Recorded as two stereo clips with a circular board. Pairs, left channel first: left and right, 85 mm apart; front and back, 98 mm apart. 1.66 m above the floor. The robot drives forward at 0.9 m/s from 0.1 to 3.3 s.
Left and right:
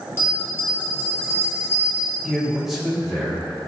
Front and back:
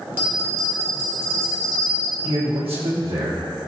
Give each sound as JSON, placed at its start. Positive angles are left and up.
{"t": 0.2, "sound": "a bell", "azimuth_deg": 125, "distance_m": 1.6}
{"t": 2.2, "sound": "a man speaking", "azimuth_deg": 180, "distance_m": 1.6}